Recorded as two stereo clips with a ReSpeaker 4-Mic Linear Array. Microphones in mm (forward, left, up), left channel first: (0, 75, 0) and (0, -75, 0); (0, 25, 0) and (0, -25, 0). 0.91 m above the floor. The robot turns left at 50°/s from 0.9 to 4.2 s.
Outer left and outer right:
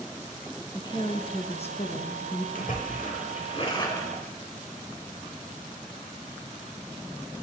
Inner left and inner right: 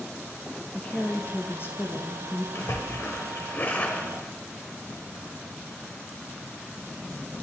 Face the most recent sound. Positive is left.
turn(degrees=15)